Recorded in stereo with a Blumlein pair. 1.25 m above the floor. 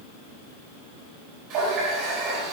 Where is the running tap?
30° right, 3 m.